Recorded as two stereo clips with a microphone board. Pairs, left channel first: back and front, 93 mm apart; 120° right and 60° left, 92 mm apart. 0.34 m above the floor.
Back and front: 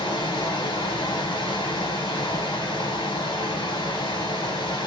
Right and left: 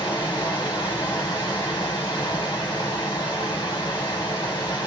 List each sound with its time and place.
0.0 s running water: 155° right, 1.4 m